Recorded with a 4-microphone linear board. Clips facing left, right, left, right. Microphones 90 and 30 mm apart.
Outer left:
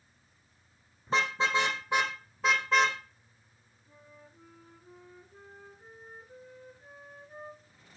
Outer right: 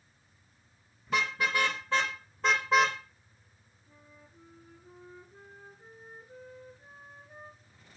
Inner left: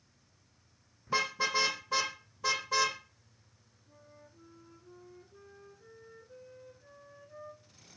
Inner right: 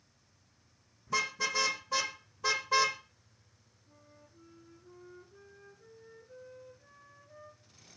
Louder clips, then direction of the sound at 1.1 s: Outer left 2 dB, inner left 1 dB; 35° left (ahead or behind).